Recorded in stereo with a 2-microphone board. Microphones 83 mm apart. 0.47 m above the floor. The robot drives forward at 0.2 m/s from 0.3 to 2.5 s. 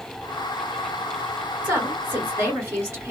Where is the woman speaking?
25° right (ahead or behind), 2.5 m.